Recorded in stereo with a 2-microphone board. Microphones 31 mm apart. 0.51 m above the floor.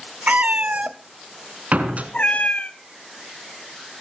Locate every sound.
0.3 s a cat meowing: 60° right (ahead or behind), 0.9 m; by 2.7 s 55° left (ahead or behind), 1.0 m
1.7 s a door slam: 55° right (ahead or behind), 3.5 m